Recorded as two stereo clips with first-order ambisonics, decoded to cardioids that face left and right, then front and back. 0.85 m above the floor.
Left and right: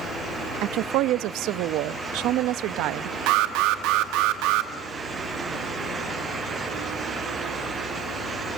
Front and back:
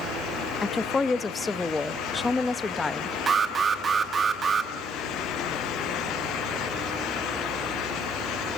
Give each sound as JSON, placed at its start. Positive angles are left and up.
{"t": 0.6, "sound": "a woman speaking", "azimuth_deg": -75, "distance_m": 0.7}
{"t": 3.3, "sound": "an alarm", "azimuth_deg": -110, "distance_m": 1.4}